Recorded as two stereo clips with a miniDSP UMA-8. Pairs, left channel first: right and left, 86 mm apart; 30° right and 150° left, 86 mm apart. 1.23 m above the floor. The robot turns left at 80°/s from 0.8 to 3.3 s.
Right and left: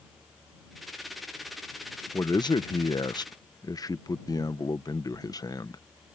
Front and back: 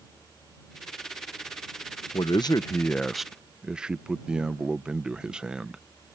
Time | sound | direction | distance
2.1 | a man speaking | 35° right | ?